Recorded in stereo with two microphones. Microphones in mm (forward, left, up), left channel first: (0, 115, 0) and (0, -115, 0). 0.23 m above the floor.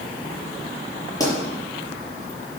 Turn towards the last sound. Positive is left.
turn(degrees=15)  # may be behind; listen again after turning